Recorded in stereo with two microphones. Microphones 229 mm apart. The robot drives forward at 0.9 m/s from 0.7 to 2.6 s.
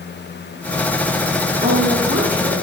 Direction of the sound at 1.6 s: 50° right (ahead or behind).